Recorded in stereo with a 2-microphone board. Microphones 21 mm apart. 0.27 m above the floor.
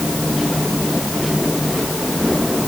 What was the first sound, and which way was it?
Only background noise.